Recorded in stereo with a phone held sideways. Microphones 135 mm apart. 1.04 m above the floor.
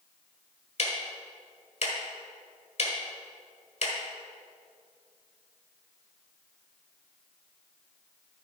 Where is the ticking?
55° left (ahead or behind), 1.6 m.